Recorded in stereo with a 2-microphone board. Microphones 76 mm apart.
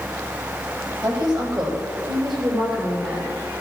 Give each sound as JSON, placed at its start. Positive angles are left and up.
{"t": 1.0, "sound": "a woman speaking", "side_deg": -55, "distance_m": 5.5}